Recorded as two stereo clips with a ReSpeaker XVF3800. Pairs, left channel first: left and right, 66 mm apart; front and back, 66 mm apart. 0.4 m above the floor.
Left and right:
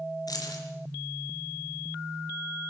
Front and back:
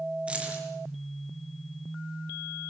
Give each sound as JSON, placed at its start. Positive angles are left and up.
{"t": 0.3, "sound": "keys jangling", "azimuth_deg": 110, "distance_m": 5.0}